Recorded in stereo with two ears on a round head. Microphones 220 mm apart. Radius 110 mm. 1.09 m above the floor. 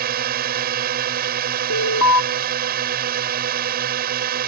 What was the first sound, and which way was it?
A drone, 40° right (ahead or behind).